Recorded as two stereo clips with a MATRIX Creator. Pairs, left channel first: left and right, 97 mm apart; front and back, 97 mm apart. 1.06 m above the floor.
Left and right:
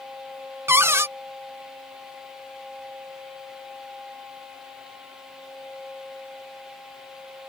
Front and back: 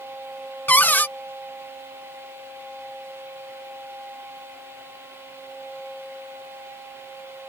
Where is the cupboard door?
55° right.